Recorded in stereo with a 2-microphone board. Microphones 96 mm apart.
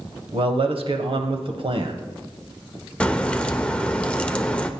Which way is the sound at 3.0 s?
10° left (ahead or behind).